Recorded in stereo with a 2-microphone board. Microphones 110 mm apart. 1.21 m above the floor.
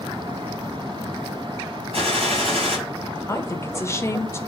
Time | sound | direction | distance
1.9 | a gunshot | 55° right (ahead or behind) | 5.5 m
3.3 | a woman speaking | 25° left (ahead or behind) | 1.3 m